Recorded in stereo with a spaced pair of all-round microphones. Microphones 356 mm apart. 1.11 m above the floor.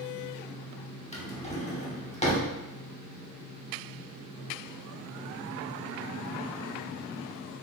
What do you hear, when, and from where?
1.1 s a drawer: 20° left (ahead or behind), 0.9 m